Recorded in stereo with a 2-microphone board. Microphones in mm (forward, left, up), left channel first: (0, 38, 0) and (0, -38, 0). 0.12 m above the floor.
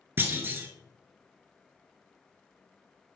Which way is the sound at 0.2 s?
25° right (ahead or behind).